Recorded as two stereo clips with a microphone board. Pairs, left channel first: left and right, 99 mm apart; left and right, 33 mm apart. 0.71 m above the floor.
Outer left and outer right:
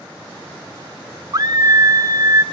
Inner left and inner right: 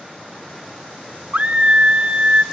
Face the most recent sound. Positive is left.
turn(degrees=-35)  # may be behind; listen again after turning